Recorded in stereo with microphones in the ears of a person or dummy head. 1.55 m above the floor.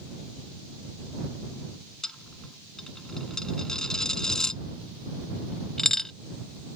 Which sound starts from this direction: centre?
A dropped coin, at 2.0 s.